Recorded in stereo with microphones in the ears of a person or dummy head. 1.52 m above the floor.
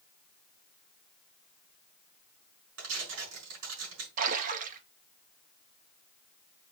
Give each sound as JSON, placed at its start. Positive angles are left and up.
{"t": 2.8, "sound": "tearing paper", "side_deg": -80, "distance_m": 6.0}
{"t": 4.2, "sound": "a splash", "side_deg": -45, "distance_m": 1.1}